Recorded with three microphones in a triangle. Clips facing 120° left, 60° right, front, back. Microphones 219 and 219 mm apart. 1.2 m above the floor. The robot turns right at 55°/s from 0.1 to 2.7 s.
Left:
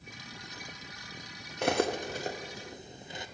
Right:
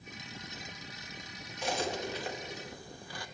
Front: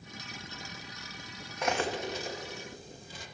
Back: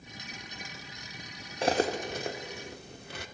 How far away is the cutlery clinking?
About 0.8 m.